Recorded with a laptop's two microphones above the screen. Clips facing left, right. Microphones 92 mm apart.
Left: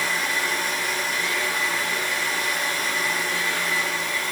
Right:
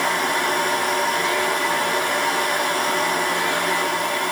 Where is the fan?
65° right (ahead or behind), 3 m.